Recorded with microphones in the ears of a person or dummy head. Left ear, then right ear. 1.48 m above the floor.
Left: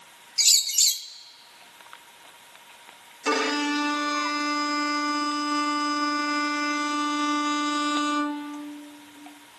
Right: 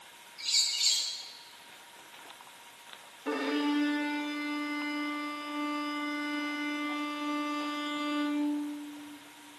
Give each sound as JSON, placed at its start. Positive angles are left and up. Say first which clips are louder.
{"t": 0.4, "sound": "a bird", "louder": "left 8 dB", "side_deg": 75, "distance_m": 1.2}
{"t": 3.2, "sound": "a violin", "louder": "left 7 dB", "side_deg": 75, "distance_m": 1.7}